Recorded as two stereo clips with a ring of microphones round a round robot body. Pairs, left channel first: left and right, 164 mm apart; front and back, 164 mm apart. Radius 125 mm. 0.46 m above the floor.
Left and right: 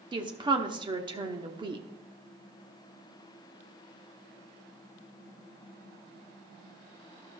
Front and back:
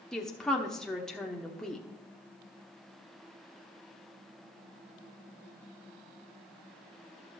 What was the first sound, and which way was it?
A woman speaking, 85° right.